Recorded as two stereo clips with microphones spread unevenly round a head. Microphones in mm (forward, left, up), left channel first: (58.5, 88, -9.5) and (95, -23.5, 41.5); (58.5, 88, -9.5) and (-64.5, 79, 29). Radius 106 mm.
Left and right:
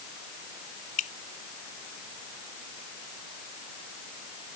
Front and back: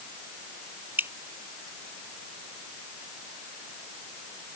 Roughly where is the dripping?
Left.